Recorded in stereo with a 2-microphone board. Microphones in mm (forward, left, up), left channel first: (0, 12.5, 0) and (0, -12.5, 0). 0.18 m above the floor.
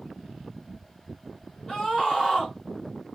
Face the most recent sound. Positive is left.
turn(degrees=25)  # may be behind; listen again after turning